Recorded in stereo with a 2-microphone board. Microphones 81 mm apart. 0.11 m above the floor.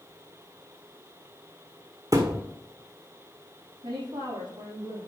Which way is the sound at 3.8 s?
60° right (ahead or behind).